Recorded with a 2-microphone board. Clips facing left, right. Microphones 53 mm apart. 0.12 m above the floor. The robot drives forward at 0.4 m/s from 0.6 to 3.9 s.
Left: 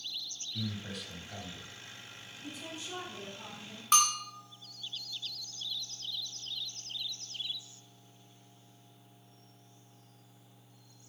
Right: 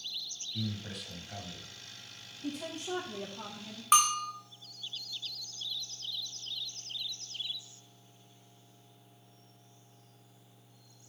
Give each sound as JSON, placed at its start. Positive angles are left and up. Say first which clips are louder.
{"t": 0.5, "sound": "a man speaking", "louder": "even", "side_deg": -5, "distance_m": 1.4}
{"t": 2.4, "sound": "a woman speaking", "louder": "right 6 dB", "side_deg": -65, "distance_m": 3.0}
{"t": 3.9, "sound": "a bell", "louder": "right 3 dB", "side_deg": -15, "distance_m": 1.2}